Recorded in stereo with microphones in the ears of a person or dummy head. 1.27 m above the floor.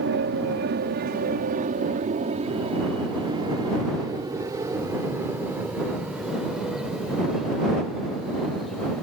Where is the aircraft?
60° right (ahead or behind); by 9.0 s 5° left (ahead or behind).